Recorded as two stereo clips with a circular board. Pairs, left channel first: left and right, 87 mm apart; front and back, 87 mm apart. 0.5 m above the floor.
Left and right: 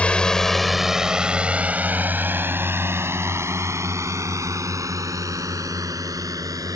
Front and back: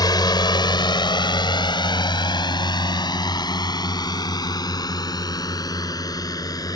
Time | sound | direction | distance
0.0 | a drone | 15° left | ?